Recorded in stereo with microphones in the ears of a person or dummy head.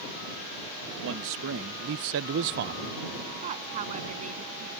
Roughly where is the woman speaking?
Right.